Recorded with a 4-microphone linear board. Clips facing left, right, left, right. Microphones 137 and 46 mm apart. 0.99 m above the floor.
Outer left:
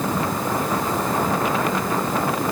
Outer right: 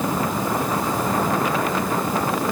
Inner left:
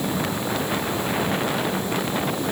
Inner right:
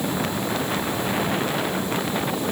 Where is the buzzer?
No buzzer in this recording.